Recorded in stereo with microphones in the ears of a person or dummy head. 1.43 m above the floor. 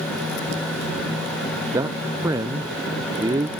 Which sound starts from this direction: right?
A man speaking, at 1.7 s.